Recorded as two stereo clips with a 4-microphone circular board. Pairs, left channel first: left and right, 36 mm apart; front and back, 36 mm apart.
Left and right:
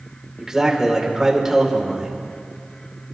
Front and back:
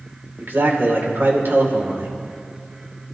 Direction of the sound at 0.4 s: 165° right.